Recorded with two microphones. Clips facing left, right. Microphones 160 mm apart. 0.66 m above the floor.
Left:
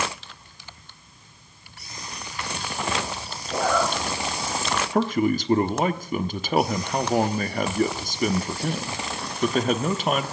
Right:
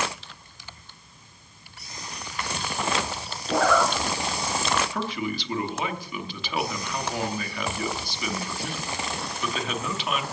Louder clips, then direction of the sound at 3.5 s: Right 2 dB; 75° right (ahead or behind).